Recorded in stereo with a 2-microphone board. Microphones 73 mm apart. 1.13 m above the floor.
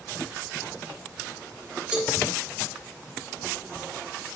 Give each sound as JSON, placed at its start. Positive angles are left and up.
{"t": 1.9, "sound": "a cowbell", "side_deg": -15, "distance_m": 3.5}